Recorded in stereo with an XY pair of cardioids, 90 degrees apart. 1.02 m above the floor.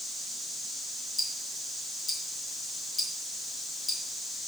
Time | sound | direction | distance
1.2 | ticking | 25° left | 4 m